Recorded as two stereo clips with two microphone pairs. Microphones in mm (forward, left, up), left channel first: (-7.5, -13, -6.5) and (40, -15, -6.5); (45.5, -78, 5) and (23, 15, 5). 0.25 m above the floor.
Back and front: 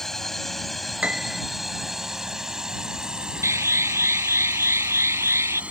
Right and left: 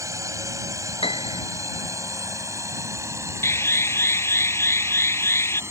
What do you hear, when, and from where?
0.0 s a drone: 100° left; by 5.7 s 50° left
1.0 s a piano: 65° right
3.4 s an alarm: 15° right